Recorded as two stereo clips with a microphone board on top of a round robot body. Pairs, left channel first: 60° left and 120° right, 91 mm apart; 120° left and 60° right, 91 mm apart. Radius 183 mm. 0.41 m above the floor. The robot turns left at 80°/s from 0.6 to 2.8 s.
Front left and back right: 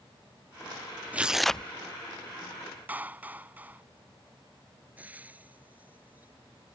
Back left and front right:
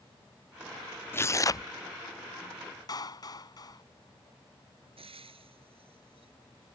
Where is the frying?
45° right.